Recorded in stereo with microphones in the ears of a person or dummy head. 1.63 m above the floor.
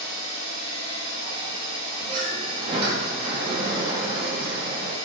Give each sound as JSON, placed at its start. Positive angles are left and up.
{"t": 0.0, "sound": "an engine running", "side_deg": -75, "distance_m": 1.2}
{"t": 2.1, "sound": "a sliding door", "side_deg": -30, "distance_m": 0.5}